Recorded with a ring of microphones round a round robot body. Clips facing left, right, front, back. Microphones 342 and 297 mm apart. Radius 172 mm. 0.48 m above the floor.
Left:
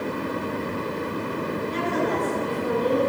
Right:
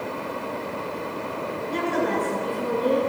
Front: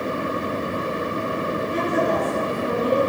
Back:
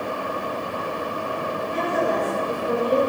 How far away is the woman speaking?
About 6.5 m.